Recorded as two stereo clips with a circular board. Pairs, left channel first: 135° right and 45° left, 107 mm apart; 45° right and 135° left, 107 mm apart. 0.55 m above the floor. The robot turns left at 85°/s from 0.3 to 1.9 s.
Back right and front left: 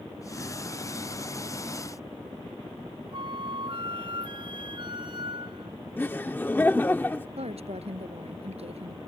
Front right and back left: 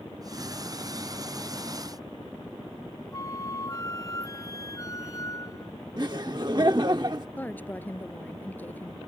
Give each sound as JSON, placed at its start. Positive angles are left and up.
{"t": 3.1, "sound": "a flute", "azimuth_deg": 10}
{"t": 6.0, "sound": "laughter", "azimuth_deg": 160}
{"t": 7.4, "sound": "a woman speaking", "azimuth_deg": 30}